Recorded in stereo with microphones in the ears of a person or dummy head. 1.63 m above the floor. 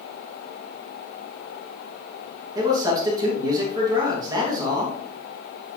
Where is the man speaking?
20° right (ahead or behind), 2.5 m.